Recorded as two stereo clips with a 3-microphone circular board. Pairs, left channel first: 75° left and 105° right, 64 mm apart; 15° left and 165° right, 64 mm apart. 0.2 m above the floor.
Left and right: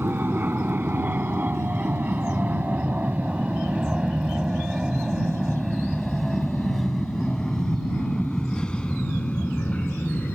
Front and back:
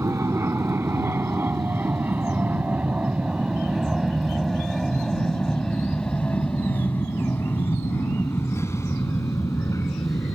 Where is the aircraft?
150° right; by 10.3 s 5° left.